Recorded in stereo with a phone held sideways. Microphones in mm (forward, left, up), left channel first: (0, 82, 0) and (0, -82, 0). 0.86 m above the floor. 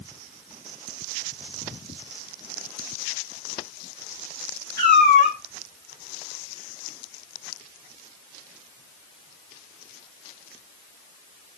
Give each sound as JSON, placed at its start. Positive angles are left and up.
{"t": 4.8, "sound": "a cat meowing", "side_deg": -60, "distance_m": 3.0}